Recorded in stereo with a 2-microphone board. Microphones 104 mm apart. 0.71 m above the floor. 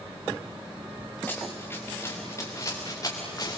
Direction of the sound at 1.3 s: 15° left (ahead or behind).